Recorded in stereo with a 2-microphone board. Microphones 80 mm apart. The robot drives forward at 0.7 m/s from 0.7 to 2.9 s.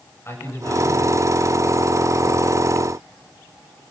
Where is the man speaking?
30° left (ahead or behind), 8.5 m.